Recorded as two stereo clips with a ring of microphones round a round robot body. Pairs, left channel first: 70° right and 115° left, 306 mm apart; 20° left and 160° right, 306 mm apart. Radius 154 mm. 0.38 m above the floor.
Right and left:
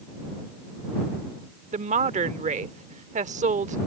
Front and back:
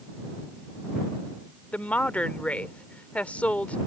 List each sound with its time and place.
1.7 s a woman speaking: 100° left